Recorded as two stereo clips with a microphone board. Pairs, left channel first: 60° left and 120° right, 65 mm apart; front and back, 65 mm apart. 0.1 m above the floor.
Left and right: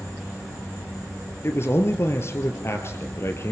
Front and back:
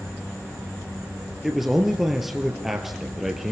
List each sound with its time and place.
1.4 s a man speaking: 95° left, 2 m